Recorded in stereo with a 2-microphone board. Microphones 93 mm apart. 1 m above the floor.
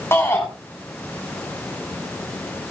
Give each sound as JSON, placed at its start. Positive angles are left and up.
{"t": 0.1, "sound": "a shout", "side_deg": 30, "distance_m": 7.0}